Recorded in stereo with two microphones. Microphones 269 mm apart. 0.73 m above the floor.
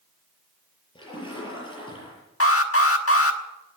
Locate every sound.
0.9 s a splash: 20° left (ahead or behind), 6.5 m
2.4 s an alarm: 60° left (ahead or behind), 1.3 m